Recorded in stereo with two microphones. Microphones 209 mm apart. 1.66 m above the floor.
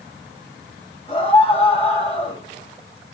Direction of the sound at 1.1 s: 30° left (ahead or behind).